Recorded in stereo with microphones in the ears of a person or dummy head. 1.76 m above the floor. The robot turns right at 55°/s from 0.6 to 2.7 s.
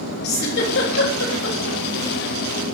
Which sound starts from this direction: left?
A giggle, at 0.2 s.